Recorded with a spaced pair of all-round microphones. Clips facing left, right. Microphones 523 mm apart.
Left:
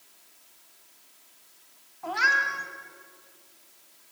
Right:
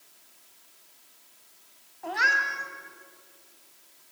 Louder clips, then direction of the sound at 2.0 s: Even; 25° left (ahead or behind).